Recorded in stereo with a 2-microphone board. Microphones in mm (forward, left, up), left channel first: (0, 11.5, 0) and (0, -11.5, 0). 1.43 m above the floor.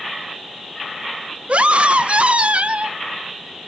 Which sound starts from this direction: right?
A scream, at 1.5 s.